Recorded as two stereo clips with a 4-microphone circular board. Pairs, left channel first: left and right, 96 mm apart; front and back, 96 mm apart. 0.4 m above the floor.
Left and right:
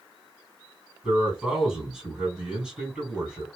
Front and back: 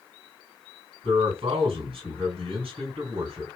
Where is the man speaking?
170° right, 2.5 m.